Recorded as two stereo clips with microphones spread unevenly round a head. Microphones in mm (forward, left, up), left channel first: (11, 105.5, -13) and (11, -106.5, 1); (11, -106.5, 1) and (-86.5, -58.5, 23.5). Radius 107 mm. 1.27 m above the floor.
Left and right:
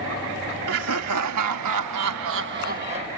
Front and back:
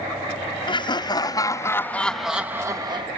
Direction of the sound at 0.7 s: 70° right.